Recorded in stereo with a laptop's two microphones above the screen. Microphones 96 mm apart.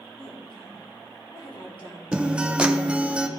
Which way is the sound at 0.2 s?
60° left (ahead or behind).